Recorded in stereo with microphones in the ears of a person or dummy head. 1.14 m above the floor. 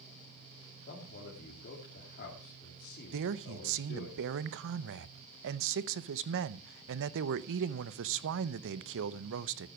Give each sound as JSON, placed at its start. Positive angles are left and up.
{"t": 0.9, "sound": "a man speaking", "side_deg": 50, "distance_m": 3.0}
{"t": 3.1, "sound": "a man speaking", "side_deg": -65, "distance_m": 0.7}